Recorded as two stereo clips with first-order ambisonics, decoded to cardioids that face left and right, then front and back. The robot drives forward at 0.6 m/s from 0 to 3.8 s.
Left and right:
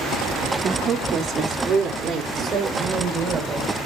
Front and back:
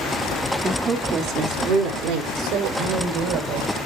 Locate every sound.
0.6 s a woman speaking: 110° right, 0.8 m; by 3.7 s 170° right, 2 m